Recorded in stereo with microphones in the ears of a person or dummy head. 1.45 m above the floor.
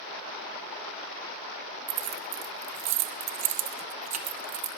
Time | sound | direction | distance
1.9 | keys jangling | 40° right (ahead or behind) | 1.0 m